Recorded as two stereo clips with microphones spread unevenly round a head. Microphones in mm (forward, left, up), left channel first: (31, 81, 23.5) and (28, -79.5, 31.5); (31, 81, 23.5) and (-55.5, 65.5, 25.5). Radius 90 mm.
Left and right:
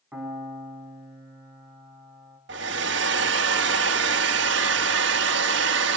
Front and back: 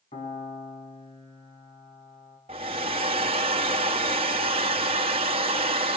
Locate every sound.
0.1 s a piano: 15° right, 6.5 m
2.5 s a hair dryer: 120° right, 2.0 m